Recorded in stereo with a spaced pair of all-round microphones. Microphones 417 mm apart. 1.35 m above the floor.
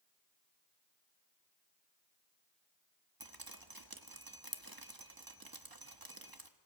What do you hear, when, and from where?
3.2 s dripping: 50° right (ahead or behind), 1.3 m